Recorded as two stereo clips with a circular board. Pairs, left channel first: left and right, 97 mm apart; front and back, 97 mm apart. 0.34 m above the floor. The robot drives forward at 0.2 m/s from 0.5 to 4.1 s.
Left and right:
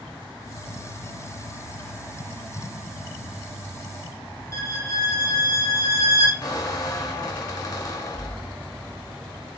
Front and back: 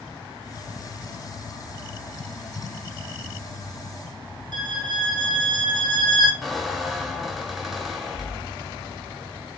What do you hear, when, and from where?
4.5 s a violin: 145° left, 1.2 m
6.4 s a squeak: 95° left, 0.9 m